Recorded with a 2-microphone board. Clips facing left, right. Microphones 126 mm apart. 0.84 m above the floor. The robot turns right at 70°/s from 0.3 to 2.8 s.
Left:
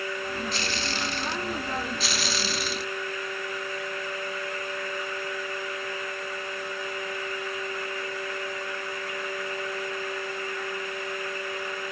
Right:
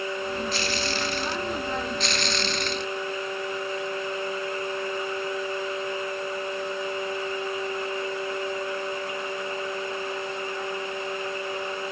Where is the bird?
I don't hear a bird.